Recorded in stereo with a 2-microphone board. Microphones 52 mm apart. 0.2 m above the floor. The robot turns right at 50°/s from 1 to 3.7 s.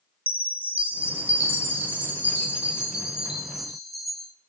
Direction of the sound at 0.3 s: 135° right.